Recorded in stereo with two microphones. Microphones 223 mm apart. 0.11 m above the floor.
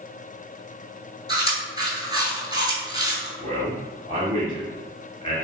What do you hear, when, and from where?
1.3 s chewing: 20° right (ahead or behind), 0.7 m
3.4 s a man speaking: 20° left (ahead or behind), 1.2 m